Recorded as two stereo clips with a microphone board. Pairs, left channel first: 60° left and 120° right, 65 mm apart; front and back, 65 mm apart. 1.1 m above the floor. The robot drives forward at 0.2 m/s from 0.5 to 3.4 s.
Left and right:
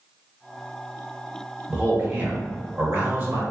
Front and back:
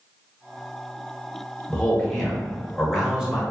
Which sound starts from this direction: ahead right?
A man speaking, at 1.7 s.